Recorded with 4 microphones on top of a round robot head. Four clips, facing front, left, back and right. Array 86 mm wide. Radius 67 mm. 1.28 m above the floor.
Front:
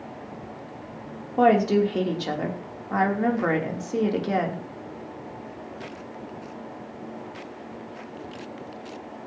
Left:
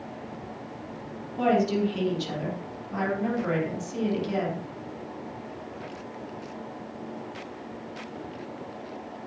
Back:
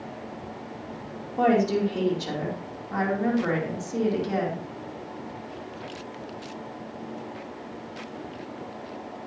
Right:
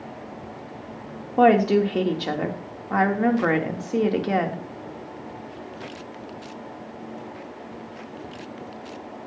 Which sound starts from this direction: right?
A woman speaking, at 1.4 s.